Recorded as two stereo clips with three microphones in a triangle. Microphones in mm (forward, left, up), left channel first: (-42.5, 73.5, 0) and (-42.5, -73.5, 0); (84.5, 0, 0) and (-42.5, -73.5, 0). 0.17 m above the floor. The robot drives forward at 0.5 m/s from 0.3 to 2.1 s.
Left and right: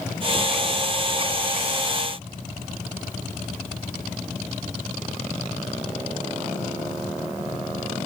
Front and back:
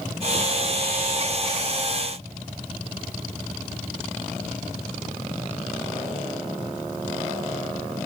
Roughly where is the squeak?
No squeak in this recording.